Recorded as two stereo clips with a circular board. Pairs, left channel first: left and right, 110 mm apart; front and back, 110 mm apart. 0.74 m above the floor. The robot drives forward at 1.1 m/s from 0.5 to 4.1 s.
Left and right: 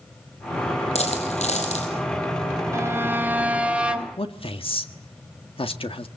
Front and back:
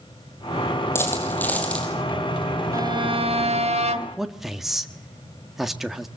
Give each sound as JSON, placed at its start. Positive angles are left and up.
{"t": 0.9, "sound": "a dropped coin", "azimuth_deg": 70, "distance_m": 5.0}
{"t": 2.7, "sound": "a violin", "azimuth_deg": -140, "distance_m": 0.6}
{"t": 4.2, "sound": "a man speaking", "azimuth_deg": 95, "distance_m": 1.6}